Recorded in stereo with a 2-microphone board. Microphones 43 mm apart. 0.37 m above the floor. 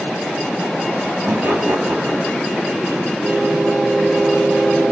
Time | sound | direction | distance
1.3 | laughter | 45° right (ahead or behind) | 2.5 m